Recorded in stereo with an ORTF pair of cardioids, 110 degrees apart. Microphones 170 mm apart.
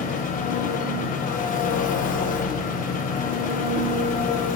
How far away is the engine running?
About 1.0 m.